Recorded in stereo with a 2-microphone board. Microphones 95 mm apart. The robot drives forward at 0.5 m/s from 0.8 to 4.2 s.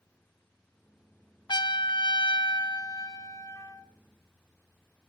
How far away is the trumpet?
About 0.7 m.